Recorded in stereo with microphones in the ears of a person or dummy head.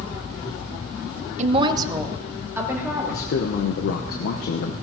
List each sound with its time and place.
1.4 s a woman speaking: 45° right (ahead or behind), 0.6 m; by 3.3 s 15° right (ahead or behind), 3 m
3.1 s a man speaking: 55° left (ahead or behind), 1.0 m